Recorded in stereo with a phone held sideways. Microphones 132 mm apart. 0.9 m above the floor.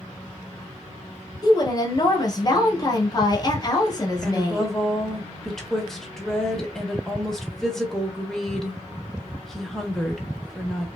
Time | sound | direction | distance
1.4 | a woman speaking | 30° left (ahead or behind) | 0.9 m
4.2 | a woman speaking | 5° left (ahead or behind) | 0.8 m